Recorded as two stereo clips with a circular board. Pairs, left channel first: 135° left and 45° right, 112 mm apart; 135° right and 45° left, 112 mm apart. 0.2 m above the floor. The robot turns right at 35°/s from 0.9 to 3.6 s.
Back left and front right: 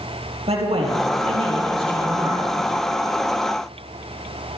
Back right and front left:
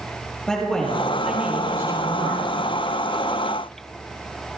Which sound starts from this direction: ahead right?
A man speaking, at 0.5 s.